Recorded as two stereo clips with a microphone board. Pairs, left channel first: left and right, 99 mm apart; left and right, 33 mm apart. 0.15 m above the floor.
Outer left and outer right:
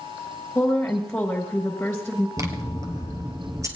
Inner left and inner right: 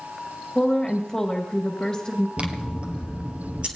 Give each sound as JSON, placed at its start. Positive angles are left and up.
{"t": 0.6, "sound": "a woman speaking", "side_deg": 10, "distance_m": 1.9}
{"t": 2.4, "sound": "scissors", "side_deg": -35, "distance_m": 1.5}